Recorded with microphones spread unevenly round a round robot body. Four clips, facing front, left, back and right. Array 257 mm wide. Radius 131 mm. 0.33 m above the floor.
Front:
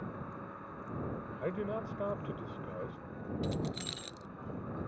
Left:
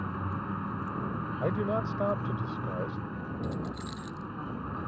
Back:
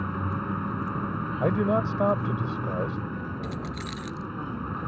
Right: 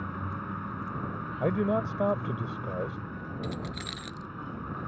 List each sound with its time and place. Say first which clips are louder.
0.0 s a vehicle: left 1 dB, back 12 dB; 165° left
1.4 s a man speaking: right 3 dB, back 13 dB; 170° right
3.4 s keys jangling: left 1 dB, back 3 dB; 95° right